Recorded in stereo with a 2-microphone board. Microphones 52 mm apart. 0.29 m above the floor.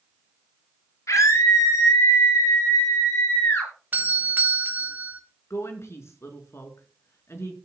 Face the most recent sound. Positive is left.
turn(degrees=60)  # may be behind; listen again after turning